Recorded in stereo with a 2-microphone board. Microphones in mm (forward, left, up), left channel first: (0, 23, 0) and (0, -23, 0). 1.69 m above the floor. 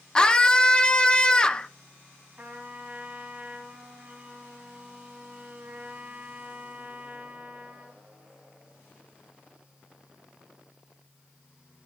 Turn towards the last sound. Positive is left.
turn(degrees=-40)  # may be behind; listen again after turning